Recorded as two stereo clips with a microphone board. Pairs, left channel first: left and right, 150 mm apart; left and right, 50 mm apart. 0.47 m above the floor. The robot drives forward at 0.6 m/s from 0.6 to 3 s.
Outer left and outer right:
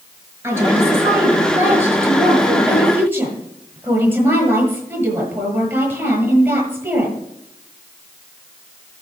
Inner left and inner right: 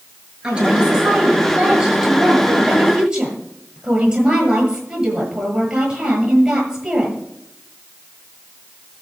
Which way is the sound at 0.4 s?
20° right (ahead or behind).